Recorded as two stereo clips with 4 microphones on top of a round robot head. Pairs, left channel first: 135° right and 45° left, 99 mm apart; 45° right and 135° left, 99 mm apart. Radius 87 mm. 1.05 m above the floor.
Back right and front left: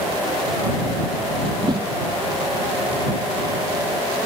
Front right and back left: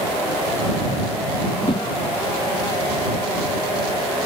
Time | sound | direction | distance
1.5 | a whoosh | 5° right | ?